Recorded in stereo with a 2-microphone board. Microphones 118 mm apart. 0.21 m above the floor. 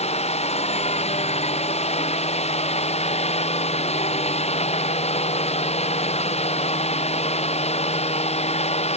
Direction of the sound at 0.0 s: 60° left (ahead or behind).